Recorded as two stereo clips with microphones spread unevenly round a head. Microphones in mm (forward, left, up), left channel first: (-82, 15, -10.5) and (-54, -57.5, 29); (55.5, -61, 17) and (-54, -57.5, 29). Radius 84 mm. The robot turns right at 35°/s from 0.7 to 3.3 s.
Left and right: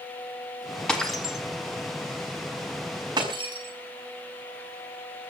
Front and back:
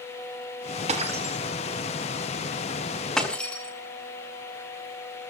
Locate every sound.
0.9 s breaking glass: 170° right, 5.5 m; by 5.3 s 85° right, 5.5 m